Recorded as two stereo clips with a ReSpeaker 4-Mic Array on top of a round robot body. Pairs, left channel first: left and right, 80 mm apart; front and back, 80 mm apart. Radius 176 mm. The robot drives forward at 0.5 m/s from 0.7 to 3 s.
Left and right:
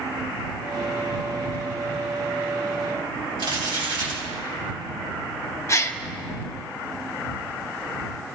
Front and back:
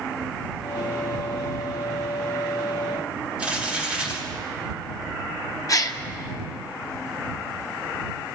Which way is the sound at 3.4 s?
100° right.